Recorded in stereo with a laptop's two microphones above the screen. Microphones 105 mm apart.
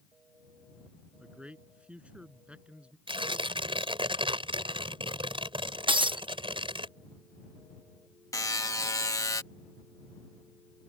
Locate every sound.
1.2 s a man speaking: 10° right (ahead or behind)
3.1 s tearing paper: 55° right (ahead or behind)
5.9 s breaking glass: 55° right (ahead or behind)
8.3 s a buzzer: 35° left (ahead or behind)